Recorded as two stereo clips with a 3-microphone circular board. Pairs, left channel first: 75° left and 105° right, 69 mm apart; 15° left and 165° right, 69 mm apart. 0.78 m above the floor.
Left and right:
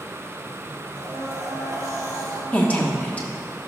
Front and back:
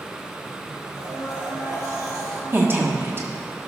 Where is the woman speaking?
140° left, 1.2 m.